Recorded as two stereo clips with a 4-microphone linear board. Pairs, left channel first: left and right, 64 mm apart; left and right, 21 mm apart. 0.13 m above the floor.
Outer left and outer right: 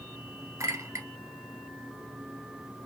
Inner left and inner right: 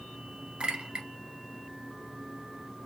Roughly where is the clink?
Right.